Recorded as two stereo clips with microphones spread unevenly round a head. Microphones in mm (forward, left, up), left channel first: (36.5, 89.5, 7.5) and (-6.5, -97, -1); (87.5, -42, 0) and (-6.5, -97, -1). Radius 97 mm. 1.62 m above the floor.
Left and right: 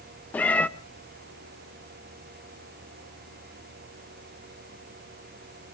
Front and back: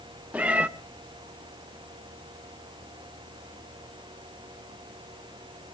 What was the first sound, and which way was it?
A cat meowing, 145° left.